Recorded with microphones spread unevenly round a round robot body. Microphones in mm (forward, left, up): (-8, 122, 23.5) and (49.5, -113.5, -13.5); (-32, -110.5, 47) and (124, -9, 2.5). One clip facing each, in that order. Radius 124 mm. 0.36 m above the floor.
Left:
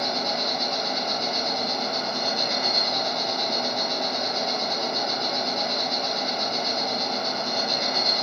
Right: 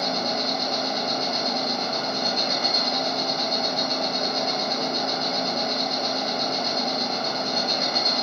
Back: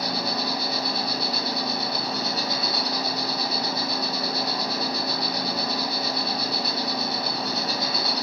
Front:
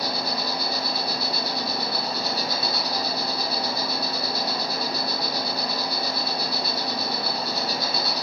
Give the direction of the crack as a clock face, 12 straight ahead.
I don't hear a crack.